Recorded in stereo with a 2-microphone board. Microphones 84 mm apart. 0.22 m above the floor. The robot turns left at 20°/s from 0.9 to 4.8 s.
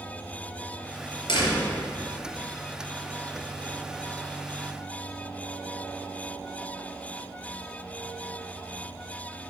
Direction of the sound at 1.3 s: 65° left (ahead or behind).